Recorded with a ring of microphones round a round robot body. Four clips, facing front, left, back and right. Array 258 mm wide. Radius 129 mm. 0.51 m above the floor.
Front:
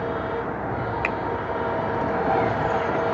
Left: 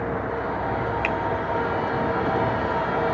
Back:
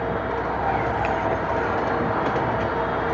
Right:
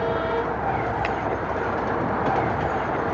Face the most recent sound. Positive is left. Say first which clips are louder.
# even, back 3 dB
turn(degrees=-20)